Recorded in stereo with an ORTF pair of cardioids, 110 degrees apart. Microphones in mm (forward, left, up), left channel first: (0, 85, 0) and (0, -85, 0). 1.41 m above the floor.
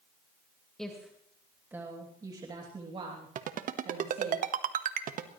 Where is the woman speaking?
5° left, 2.5 m; by 4.3 s 50° right, 3.5 m.